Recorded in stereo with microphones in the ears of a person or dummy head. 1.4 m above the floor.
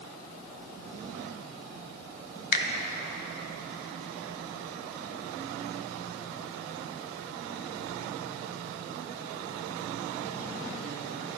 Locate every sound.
2.5 s a finger snap: 50° left (ahead or behind), 0.7 m